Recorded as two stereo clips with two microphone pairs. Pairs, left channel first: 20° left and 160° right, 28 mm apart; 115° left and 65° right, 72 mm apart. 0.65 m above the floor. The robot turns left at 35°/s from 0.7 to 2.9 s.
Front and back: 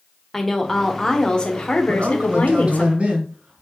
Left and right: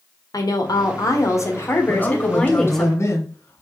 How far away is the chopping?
No chopping in this recording.